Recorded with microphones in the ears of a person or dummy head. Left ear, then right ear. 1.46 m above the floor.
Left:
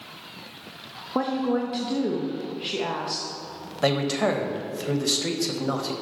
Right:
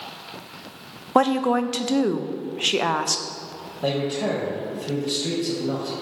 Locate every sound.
1.1 s a woman speaking: 45° right (ahead or behind), 0.6 m
3.8 s a man speaking: 65° left (ahead or behind), 1.1 m